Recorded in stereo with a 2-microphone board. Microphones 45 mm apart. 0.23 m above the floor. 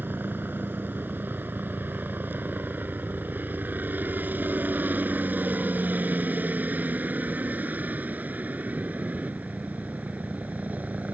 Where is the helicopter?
45° right (ahead or behind); by 11.2 s 35° right (ahead or behind).